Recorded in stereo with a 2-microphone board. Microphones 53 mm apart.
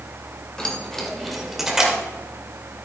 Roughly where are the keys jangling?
Centre.